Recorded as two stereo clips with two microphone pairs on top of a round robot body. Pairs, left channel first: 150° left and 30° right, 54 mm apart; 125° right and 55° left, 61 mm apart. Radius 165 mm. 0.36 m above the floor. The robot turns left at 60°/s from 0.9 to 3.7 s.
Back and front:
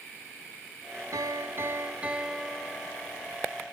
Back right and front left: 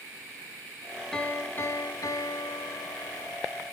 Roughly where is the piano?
Ahead right.